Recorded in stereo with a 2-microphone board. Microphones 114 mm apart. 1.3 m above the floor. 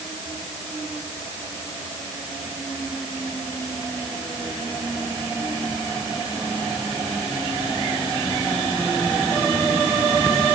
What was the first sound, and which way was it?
Only background noise.